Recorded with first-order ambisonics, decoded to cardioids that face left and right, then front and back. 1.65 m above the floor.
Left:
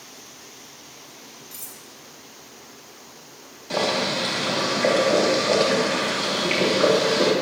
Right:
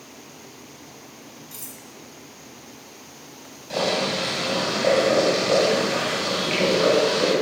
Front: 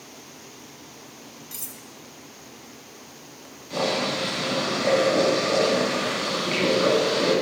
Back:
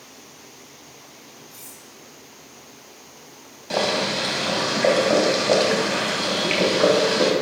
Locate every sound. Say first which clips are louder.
1.5 s cutlery clinking: right 1 dB, front 3 dB; 5° right, 1.5 m
3.7 s boiling: even, back 3 dB; 170° left, 3 m